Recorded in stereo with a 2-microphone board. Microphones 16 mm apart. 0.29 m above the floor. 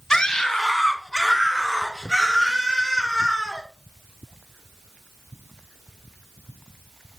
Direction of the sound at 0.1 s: 30° left (ahead or behind).